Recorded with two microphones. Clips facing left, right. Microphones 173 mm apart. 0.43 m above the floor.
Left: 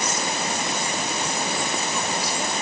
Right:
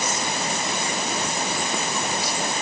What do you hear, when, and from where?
Only background noise.